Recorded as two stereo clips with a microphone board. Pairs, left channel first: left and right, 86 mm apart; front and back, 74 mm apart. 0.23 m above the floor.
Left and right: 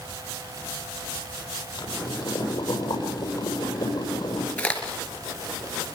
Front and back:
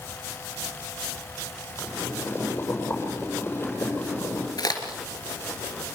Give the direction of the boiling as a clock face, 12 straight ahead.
10 o'clock.